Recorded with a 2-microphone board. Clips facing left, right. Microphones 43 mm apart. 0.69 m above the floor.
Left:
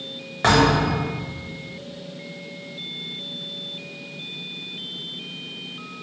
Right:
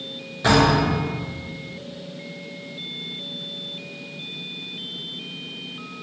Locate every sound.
0.4 s a thud: 60° left (ahead or behind), 1.3 m